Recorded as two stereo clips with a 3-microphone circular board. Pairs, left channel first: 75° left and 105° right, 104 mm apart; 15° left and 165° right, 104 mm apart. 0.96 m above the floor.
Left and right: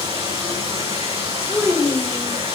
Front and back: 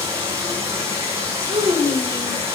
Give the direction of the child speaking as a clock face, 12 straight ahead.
6 o'clock.